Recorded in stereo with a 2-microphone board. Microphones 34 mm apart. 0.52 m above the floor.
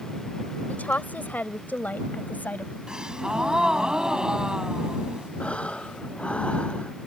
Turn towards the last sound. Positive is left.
turn(degrees=40)  # may be behind; listen again after turning